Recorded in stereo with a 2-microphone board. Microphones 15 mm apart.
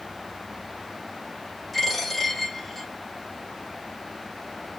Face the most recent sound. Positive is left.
turn(degrees=0)  # may be behind; listen again after turning